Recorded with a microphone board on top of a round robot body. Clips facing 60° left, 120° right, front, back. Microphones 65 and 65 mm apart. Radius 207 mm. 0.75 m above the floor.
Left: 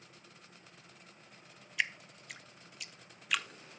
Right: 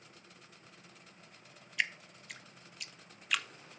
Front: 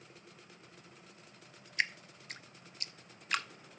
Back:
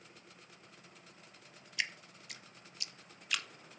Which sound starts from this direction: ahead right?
Dripping, at 1.8 s.